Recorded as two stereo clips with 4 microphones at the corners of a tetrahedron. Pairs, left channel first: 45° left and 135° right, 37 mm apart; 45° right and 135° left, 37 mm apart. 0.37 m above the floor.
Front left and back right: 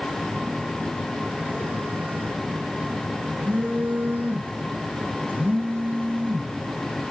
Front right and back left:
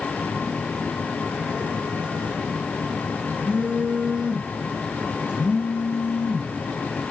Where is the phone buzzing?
160° right, 8.5 m.